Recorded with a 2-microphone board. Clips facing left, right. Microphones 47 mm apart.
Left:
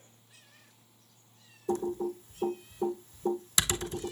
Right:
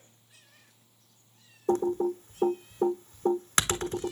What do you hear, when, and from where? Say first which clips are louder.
1.7 s typing on a keyboard: right 5 dB; 50° right (ahead or behind), 1.0 m